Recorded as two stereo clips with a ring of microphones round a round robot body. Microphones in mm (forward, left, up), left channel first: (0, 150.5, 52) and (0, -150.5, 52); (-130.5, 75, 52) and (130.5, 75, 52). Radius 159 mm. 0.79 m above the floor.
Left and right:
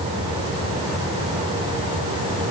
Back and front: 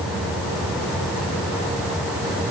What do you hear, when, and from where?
Only background noise.